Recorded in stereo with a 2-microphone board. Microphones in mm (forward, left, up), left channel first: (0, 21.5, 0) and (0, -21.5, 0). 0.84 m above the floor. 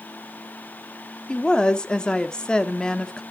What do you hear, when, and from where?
1.3 s a woman speaking: 20° left (ahead or behind), 1.4 m